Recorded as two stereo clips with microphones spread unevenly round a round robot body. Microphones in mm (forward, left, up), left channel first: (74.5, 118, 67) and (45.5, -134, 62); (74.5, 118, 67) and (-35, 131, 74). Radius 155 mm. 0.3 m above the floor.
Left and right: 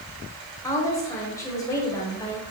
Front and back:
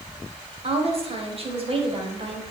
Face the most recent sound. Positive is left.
turn(degrees=160)